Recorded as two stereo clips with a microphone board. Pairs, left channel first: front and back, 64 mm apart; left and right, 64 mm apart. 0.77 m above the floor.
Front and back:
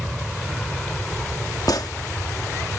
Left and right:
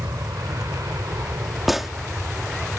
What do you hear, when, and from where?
0.0 s an aircraft: 90° right; by 2.8 s 60° right
1.7 s a gunshot: 5° right